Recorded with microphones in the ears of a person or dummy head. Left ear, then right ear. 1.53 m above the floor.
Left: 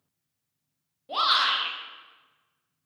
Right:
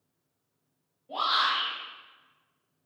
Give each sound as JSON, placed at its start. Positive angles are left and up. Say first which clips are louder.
{"t": 1.1, "sound": "a shout", "louder": "left 3 dB", "side_deg": 60, "distance_m": 0.8}